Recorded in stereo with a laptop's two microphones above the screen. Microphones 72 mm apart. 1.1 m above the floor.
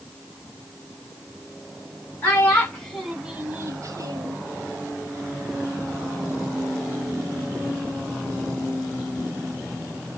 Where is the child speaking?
30° left (ahead or behind), 1.1 m; by 4.4 s 65° right (ahead or behind), 1.1 m.